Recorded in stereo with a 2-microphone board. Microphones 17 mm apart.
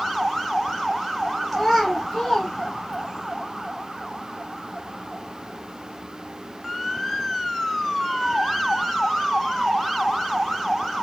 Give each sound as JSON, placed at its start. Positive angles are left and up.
{"t": 1.5, "sound": "a child speaking", "side_deg": -5, "distance_m": 2.0}